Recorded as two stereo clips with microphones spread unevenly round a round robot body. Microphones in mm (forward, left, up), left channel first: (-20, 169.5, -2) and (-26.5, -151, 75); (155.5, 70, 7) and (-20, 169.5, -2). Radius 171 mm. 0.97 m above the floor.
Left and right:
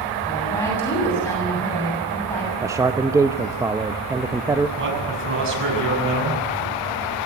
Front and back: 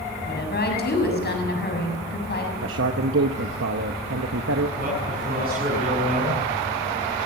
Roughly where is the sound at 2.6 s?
Behind.